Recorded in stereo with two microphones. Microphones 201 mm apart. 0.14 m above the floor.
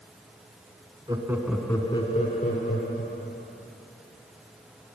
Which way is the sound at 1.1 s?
20° right (ahead or behind).